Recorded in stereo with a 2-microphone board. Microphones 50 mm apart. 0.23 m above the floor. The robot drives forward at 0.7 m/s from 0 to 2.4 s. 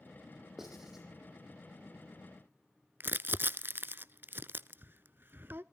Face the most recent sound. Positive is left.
turn(degrees=-45)  # may be behind; listen again after turning